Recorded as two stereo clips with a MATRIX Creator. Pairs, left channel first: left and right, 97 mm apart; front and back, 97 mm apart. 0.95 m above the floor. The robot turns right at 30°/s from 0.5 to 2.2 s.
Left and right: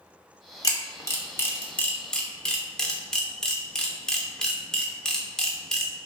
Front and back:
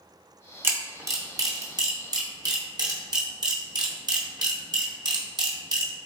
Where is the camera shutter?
125° left, 0.6 m; by 5.9 s 170° left, 0.6 m.